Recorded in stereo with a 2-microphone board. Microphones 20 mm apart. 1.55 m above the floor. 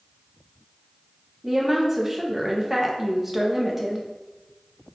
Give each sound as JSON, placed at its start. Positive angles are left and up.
{"t": 1.4, "sound": "a woman speaking", "side_deg": -15, "distance_m": 0.6}